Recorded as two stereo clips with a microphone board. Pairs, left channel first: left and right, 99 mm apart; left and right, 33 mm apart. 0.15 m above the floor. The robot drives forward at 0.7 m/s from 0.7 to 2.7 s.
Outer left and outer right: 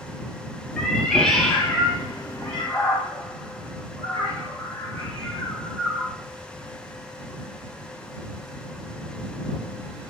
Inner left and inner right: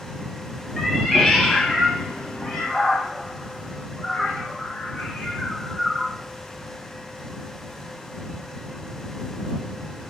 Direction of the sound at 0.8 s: 5° left (ahead or behind).